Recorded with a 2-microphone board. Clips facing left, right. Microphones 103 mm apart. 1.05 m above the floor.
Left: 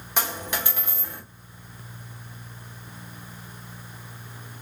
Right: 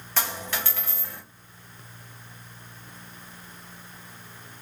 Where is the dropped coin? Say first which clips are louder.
Left 2 dB; 15° left (ahead or behind), 1.3 m.